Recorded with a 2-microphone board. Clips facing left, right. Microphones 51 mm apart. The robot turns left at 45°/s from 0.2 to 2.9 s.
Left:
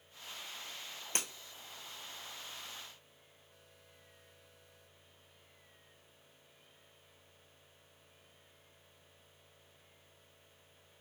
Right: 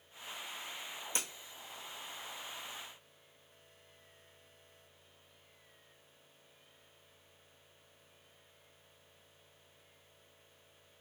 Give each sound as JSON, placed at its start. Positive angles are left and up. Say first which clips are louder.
{"t": 1.1, "sound": "breaking glass", "louder": "left 1 dB", "side_deg": 50, "distance_m": 1.1}